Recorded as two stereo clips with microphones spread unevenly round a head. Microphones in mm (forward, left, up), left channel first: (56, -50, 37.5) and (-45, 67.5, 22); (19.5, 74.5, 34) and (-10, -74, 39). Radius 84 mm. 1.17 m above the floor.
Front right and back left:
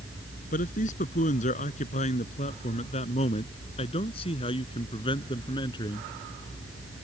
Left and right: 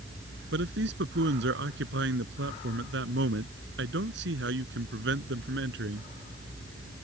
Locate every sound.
0.5 s a man speaking: 95° right; by 6.1 s 115° right